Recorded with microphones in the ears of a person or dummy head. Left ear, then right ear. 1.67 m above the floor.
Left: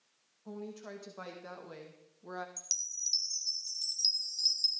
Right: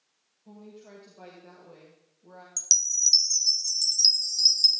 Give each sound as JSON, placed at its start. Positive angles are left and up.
{"t": 0.5, "sound": "a woman speaking", "side_deg": 45, "distance_m": 2.5}
{"t": 2.6, "sound": "a chime", "side_deg": -20, "distance_m": 0.5}